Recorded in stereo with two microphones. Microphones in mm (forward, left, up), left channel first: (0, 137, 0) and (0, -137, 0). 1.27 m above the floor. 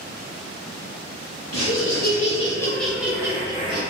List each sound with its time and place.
1.5 s laughter: 55° left (ahead or behind), 0.6 m; by 3.8 s 20° right (ahead or behind), 1.1 m